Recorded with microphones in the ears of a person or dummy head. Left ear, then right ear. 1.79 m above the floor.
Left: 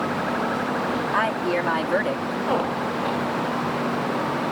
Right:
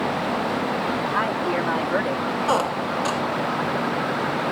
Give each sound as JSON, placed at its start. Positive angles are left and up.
{"t": 1.1, "sound": "a woman speaking", "side_deg": 15}
{"t": 2.5, "sound": "a squeak", "side_deg": -65}